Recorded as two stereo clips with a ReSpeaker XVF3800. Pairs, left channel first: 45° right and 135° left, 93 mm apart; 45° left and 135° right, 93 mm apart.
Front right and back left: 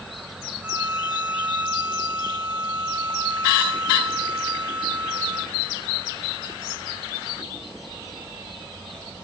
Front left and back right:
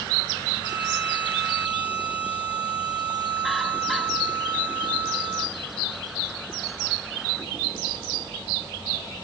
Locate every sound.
0.6 s a violin: 60° left, 0.6 m